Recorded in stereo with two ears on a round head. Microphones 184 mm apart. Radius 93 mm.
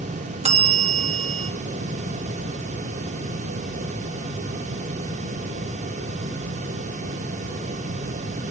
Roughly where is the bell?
Right.